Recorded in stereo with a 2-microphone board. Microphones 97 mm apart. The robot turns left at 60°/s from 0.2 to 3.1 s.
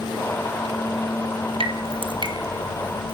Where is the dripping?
70° right (ahead or behind), 1.6 m; by 3.1 s 5° right (ahead or behind), 1.6 m.